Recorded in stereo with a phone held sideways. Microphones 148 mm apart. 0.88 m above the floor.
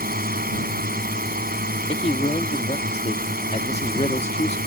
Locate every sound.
0.0 s a drone: 80° right
1.9 s a man speaking: 45° left (ahead or behind)